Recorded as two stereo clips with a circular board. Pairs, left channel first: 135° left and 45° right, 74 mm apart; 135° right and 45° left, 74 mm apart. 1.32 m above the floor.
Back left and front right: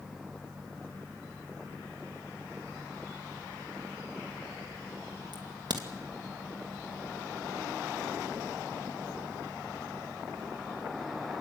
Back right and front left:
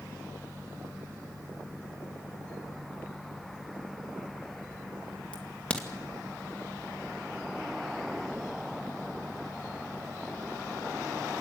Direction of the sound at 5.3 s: 60° right.